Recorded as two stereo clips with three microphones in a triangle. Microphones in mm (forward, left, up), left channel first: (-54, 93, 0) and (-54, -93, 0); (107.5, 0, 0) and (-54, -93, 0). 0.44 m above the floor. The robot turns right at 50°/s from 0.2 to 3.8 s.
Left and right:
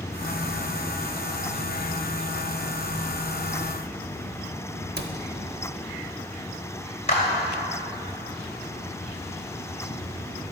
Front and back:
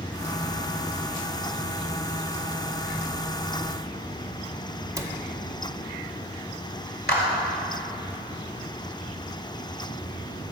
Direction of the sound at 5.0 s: 75° right.